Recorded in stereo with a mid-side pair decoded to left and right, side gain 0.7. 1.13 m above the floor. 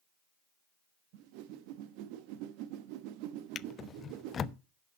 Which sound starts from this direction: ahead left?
A drawer, at 3.5 s.